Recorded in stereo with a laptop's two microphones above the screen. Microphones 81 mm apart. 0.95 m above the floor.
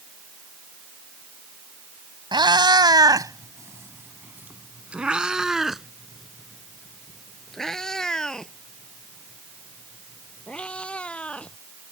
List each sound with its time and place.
2.3 s a cat meowing: 75° right (ahead or behind); by 11.5 s 15° left (ahead or behind)